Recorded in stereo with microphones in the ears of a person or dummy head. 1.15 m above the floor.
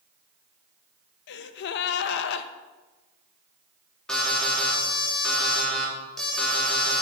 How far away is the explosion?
No explosion in this recording.